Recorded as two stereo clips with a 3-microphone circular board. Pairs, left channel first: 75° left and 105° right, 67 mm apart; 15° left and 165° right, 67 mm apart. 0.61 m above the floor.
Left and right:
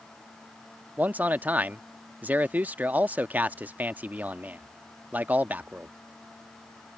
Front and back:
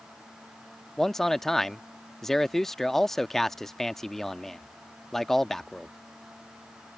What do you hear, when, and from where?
1.0 s a man speaking: 65° right